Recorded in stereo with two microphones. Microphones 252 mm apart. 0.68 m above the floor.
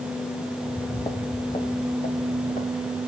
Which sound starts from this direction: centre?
Footsteps, at 0.6 s.